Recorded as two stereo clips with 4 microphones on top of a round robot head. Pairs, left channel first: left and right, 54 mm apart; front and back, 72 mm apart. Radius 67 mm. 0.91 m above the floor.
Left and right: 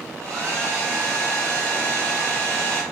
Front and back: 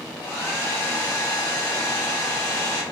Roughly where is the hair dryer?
Ahead right.